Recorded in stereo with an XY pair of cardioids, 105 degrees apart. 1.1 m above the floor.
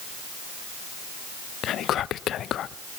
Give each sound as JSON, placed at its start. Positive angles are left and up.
{"t": 1.6, "sound": "whispering", "azimuth_deg": 70, "distance_m": 0.5}